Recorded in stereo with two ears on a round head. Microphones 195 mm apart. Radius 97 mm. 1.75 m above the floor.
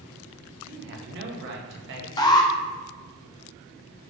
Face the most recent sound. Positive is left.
turn(degrees=20)  # may be behind; listen again after turning